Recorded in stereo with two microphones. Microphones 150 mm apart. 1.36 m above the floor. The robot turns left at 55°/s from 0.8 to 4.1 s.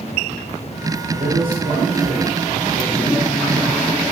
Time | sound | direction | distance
1.1 | a man speaking | 85° right | 9 m